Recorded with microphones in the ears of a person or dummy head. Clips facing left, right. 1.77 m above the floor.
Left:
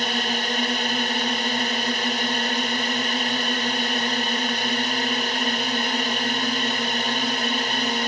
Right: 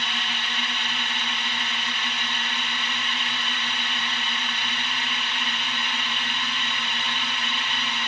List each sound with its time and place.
0.0 s a drone: 35° left (ahead or behind)